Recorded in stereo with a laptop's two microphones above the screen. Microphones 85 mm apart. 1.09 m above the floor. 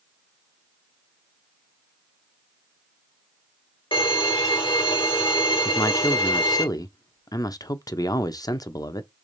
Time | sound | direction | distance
3.9 | a violin | 70° left (ahead or behind) | 1.3 m
5.7 | a man speaking | 45° left (ahead or behind) | 0.6 m